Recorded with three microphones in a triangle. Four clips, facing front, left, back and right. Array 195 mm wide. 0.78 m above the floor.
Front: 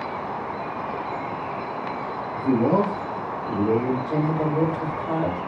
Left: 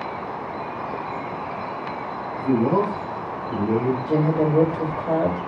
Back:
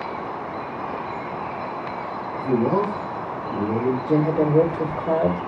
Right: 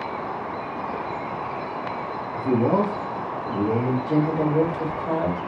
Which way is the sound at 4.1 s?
170° left.